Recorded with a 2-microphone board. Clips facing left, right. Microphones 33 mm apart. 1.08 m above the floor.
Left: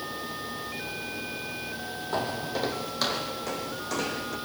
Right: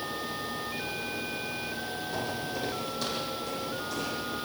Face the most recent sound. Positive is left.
turn(degrees=70)  # may be behind; listen again after turning